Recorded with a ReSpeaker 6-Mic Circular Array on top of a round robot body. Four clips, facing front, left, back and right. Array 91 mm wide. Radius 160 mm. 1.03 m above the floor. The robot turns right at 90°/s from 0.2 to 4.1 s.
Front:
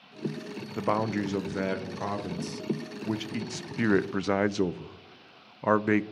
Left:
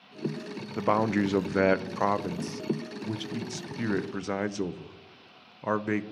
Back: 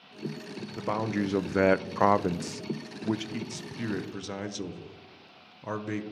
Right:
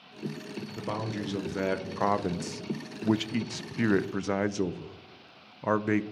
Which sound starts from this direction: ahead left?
A man speaking, at 0.8 s.